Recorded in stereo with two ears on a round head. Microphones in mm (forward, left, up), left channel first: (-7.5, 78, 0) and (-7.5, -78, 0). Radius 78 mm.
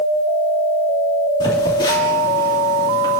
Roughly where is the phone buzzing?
Left.